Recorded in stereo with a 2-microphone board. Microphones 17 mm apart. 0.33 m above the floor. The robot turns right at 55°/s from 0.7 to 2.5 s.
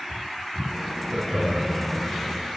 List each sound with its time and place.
1.1 s laughter: 60° right (ahead or behind), 5 m; by 1.8 s 25° right (ahead or behind), 5 m